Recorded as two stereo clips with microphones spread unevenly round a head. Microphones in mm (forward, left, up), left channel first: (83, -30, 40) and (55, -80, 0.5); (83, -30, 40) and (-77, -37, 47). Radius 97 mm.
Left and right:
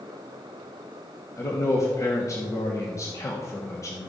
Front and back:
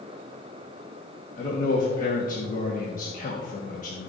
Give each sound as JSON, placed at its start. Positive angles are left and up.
{"t": 1.4, "sound": "a man speaking", "azimuth_deg": 5, "distance_m": 1.3}